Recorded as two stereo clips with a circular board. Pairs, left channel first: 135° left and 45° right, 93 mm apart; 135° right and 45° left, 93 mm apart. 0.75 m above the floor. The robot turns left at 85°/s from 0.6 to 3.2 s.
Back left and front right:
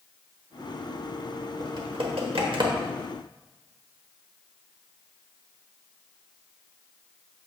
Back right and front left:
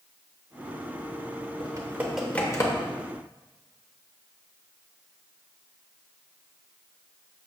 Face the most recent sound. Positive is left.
turn(degrees=-130)